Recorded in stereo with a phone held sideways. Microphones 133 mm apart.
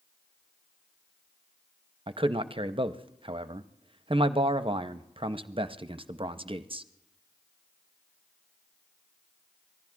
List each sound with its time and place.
2.1 s a man speaking: 40° right (ahead or behind), 0.6 m